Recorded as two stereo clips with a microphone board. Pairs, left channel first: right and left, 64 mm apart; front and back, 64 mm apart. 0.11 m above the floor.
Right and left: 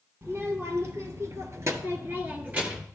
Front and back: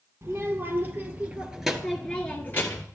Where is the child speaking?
135° left, 2.5 m; by 2.8 s 25° left, 1.6 m.